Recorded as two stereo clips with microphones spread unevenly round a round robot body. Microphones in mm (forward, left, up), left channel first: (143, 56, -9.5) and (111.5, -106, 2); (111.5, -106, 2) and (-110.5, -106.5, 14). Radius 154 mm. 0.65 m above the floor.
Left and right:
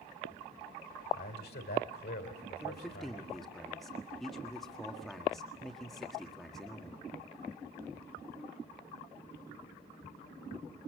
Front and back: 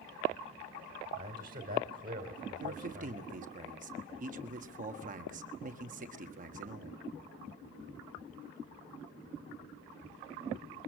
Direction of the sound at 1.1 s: 120° left.